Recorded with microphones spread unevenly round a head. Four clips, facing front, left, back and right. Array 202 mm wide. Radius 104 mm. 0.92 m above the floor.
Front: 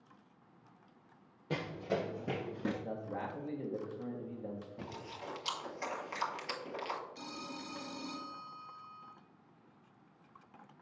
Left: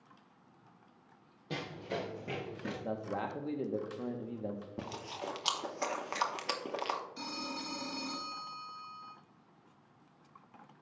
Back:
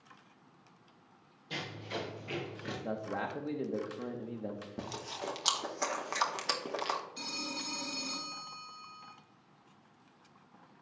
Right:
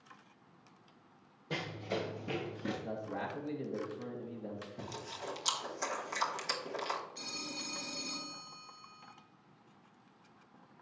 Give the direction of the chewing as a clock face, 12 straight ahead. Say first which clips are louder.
Left 2 dB, back 5 dB; 7 o'clock.